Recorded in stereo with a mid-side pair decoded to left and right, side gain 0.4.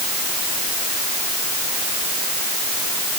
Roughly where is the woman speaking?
No woman speaking in this recording.